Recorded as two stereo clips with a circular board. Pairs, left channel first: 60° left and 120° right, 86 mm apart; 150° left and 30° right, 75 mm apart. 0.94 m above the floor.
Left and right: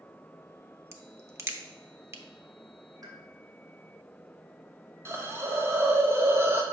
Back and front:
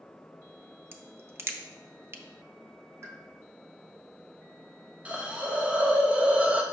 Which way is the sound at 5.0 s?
90° right.